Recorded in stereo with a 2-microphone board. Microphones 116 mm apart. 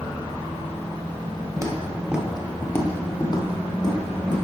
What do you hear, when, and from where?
1.6 s footsteps: 25° right (ahead or behind), 1.4 m; by 4.5 s 40° left (ahead or behind), 3 m